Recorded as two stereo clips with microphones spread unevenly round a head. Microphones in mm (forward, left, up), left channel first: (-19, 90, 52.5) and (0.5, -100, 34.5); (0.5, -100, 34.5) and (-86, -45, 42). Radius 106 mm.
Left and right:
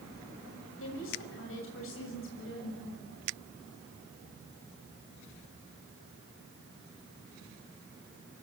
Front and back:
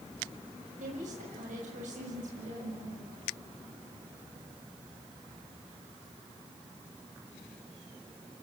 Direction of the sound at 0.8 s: 120° left.